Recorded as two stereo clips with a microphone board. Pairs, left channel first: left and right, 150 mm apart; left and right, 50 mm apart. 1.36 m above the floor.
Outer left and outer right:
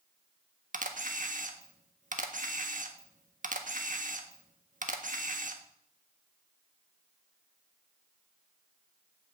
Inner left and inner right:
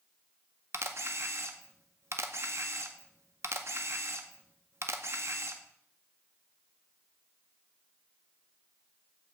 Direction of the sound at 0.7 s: 60° right (ahead or behind).